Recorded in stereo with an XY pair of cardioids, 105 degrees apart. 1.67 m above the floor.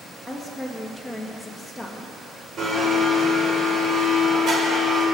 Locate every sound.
0.3 s a woman speaking: straight ahead, 2.5 m
2.6 s a blender: 40° right, 5 m